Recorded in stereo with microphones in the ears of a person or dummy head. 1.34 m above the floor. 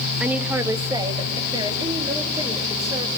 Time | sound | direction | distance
0.2 | a woman speaking | 5° right (ahead or behind) | 1.0 m